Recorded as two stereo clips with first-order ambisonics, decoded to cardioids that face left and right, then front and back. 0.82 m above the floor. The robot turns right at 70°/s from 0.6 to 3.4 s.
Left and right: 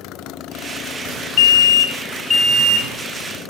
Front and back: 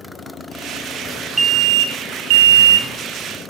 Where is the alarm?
105° left, 1.2 m; by 2.9 s 150° right, 1.2 m.